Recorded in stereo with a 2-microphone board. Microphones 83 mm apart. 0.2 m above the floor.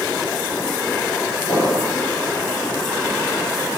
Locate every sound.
1.5 s an explosion: 70° left (ahead or behind), 3.5 m